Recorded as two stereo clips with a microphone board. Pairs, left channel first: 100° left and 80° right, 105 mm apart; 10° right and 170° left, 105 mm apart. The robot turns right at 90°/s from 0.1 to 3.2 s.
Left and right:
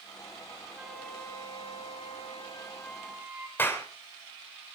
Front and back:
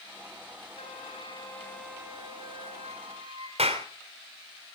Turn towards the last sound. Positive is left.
turn(degrees=170)